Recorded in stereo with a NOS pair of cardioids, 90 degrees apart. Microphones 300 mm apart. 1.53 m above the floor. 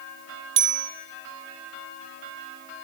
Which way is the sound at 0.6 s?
40° right.